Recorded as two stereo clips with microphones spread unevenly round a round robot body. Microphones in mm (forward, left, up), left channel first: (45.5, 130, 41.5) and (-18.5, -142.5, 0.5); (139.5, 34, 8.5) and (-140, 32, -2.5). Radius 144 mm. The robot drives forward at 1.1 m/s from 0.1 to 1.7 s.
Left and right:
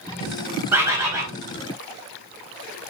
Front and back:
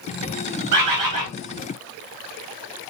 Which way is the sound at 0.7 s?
Straight behind.